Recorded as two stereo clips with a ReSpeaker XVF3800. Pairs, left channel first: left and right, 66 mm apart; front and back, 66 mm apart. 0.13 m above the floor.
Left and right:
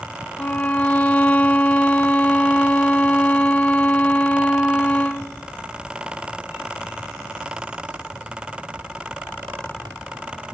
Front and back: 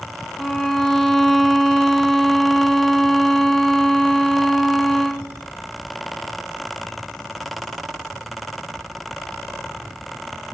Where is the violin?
80° left, 0.6 m.